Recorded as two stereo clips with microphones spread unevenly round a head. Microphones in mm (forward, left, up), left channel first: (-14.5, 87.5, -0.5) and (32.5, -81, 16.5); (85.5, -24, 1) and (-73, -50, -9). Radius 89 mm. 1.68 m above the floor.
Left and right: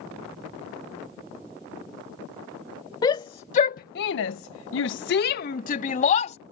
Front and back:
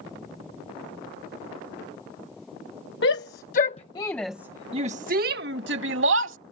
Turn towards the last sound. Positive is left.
turn(degrees=165)